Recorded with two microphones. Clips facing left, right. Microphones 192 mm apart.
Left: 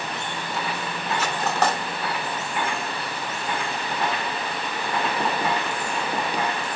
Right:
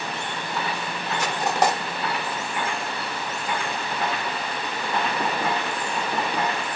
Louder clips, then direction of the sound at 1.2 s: Right 2 dB; 15° right (ahead or behind).